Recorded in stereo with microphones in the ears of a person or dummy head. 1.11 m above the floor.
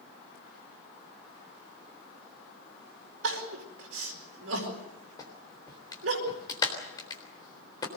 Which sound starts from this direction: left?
A clap, at 5.2 s.